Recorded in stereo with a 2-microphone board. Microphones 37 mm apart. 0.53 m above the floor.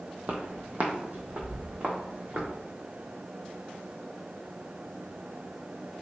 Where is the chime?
No chime in this recording.